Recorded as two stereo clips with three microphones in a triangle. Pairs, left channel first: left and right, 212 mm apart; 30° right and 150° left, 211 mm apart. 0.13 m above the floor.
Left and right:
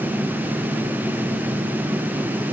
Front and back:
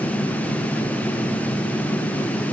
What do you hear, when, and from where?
Only background noise.